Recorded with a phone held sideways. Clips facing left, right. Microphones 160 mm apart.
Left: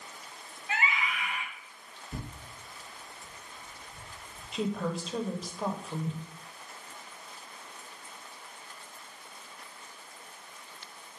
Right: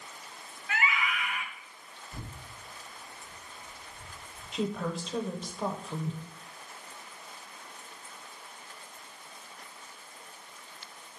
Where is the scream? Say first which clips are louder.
Right 1 dB; 30° left (ahead or behind), 1.2 m.